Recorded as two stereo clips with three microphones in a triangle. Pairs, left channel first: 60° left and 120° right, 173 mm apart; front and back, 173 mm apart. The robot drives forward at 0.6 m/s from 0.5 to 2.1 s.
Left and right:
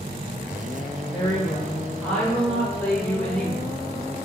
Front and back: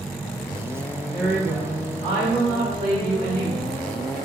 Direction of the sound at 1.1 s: 75° left.